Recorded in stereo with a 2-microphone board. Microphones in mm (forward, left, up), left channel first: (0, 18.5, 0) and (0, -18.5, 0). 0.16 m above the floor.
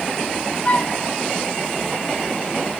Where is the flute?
35° left (ahead or behind), 0.9 m.